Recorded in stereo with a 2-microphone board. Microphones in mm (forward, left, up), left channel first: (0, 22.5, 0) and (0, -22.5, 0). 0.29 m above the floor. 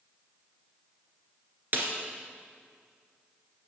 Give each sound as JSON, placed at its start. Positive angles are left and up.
{"t": 1.7, "sound": "a snare drum", "side_deg": -45, "distance_m": 2.0}